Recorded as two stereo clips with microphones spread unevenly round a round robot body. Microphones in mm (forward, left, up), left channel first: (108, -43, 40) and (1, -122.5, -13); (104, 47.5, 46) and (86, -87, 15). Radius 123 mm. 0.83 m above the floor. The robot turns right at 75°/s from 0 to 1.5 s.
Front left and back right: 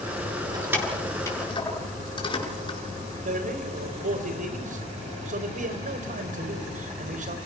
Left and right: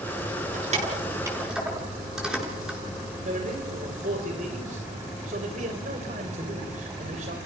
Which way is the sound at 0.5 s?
85° right.